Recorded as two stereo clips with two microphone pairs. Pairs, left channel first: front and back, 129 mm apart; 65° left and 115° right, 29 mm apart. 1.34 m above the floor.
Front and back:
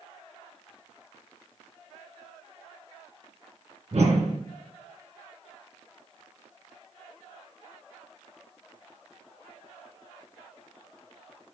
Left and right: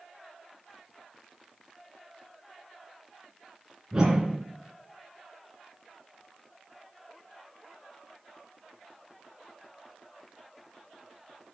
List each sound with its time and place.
3.9 s a whoosh: 175° left, 2.5 m